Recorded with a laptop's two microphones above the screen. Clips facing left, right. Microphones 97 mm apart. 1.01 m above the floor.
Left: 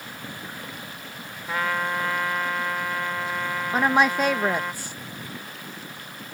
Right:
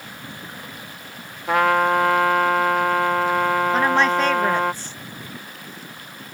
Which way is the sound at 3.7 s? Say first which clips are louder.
Left 2 dB; 10° left (ahead or behind).